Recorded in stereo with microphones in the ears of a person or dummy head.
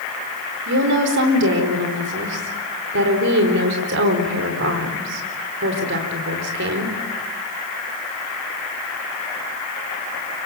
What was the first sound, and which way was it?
A woman speaking, 60° right (ahead or behind).